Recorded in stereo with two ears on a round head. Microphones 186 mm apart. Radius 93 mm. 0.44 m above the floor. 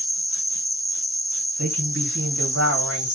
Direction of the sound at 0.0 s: 5° right (ahead or behind).